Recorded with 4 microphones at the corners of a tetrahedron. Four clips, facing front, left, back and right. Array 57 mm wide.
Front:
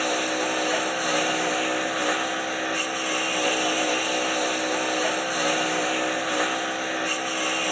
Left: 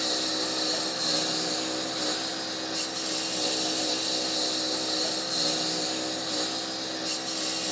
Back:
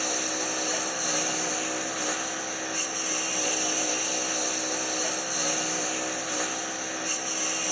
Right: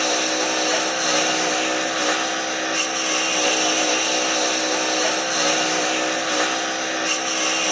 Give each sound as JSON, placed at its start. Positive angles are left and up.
{"t": 0.0, "sound": "a lawn mower", "azimuth_deg": -70}